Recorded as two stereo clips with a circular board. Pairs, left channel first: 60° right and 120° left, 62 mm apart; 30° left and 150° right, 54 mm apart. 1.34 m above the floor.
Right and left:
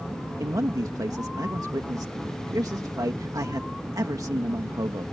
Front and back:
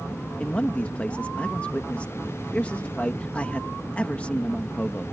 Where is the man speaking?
95° left.